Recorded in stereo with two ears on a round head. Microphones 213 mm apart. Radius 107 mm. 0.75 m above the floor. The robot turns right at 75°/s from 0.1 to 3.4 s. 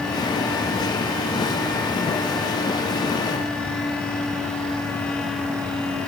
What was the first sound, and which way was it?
Only background noise.